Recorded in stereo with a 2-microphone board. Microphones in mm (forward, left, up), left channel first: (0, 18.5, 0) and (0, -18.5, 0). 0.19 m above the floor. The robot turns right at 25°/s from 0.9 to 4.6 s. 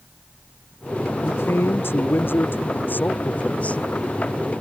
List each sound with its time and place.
1.2 s a man speaking: 80° left; by 3.8 s 145° left